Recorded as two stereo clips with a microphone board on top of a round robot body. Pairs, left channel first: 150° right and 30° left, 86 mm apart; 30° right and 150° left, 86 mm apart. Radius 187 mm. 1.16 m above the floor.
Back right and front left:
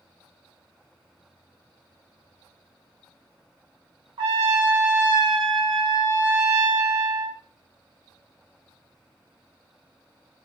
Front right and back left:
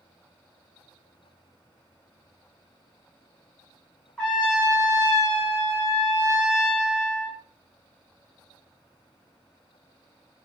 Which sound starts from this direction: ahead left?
A trumpet, at 4.2 s.